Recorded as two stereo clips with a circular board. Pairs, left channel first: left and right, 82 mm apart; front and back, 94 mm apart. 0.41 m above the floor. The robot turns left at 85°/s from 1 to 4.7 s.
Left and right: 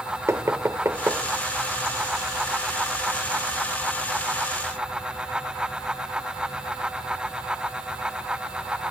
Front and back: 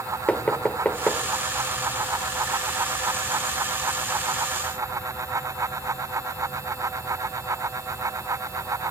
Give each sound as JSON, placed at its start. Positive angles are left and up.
{"t": 0.3, "sound": "knocking", "azimuth_deg": -65, "distance_m": 0.9}